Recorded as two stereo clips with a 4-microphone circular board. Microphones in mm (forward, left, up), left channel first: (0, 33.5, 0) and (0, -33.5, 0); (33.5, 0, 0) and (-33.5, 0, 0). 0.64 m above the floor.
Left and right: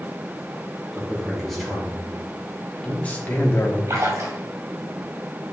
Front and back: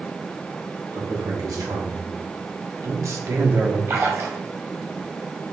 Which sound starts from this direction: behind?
A man speaking, at 0.9 s.